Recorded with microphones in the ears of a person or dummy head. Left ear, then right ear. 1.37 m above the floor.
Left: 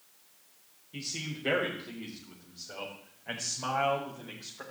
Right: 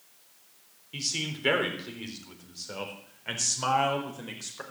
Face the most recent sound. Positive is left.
turn(degrees=-70)  # may be behind; listen again after turning